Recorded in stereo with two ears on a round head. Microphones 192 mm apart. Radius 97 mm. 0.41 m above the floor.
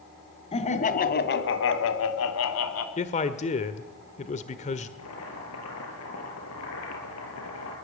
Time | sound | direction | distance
0.5 | laughter | 30° left (ahead or behind) | 3 m
3.0 | a man speaking | 30° left (ahead or behind) | 1.5 m
5.0 | boiling | 80° left | 6.5 m